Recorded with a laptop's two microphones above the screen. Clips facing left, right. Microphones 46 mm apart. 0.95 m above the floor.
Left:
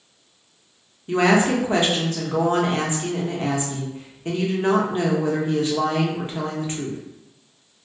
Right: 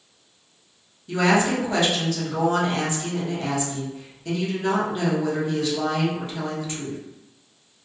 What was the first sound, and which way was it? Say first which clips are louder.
A woman speaking: left 2 dB; 35° left (ahead or behind).